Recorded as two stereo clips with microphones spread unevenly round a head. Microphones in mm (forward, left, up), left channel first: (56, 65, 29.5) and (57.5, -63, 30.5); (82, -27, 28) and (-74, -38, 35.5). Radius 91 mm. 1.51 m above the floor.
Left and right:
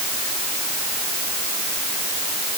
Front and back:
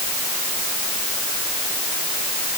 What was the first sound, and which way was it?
Only background noise.